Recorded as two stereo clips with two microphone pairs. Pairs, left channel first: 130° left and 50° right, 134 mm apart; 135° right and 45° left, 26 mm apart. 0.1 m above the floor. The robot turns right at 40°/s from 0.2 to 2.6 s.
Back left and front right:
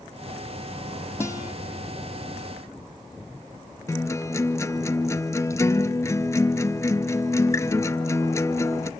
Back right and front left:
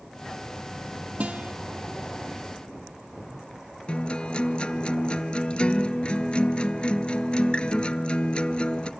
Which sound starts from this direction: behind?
A guitar, at 3.9 s.